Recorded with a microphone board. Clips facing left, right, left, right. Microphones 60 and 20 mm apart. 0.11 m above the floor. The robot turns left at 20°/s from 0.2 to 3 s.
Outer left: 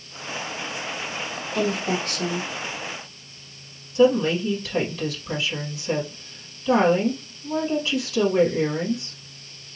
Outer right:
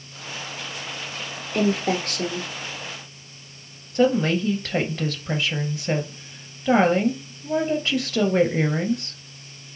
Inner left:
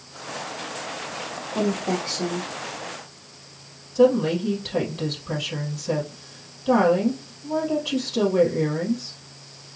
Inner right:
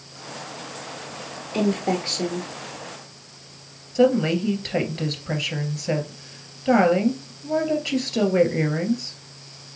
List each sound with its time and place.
1.5 s a woman speaking: 50° right (ahead or behind), 1.6 m; by 2.5 s 55° right (ahead or behind), 1.6 m
4.0 s a woman speaking: 50° right (ahead or behind), 2 m